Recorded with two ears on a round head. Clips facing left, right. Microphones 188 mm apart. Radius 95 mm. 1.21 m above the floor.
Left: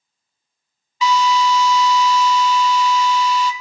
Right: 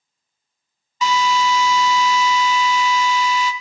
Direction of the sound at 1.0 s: 40° right (ahead or behind).